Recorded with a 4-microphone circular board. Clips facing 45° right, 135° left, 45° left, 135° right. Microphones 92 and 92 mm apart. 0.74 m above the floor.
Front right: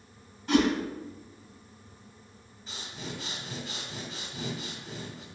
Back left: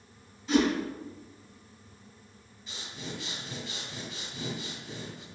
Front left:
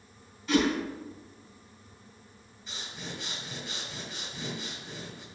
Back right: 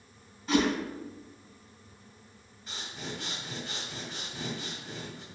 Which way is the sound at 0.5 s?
80° right.